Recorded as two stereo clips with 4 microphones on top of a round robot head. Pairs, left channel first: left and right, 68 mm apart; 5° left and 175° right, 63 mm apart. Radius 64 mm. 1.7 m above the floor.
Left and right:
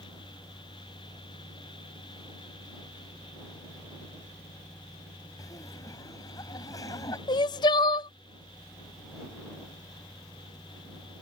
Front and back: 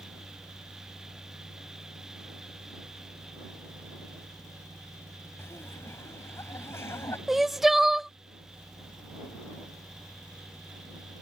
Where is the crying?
100° left.